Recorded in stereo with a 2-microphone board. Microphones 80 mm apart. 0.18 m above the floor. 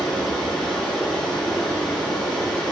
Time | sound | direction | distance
0.0 | running water | 10° left (ahead or behind) | 8 m